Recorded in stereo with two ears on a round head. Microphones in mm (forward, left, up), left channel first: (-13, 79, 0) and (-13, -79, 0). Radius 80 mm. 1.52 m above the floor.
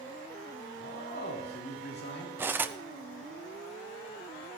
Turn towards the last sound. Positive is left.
turn(degrees=-10)  # may be behind; listen again after turning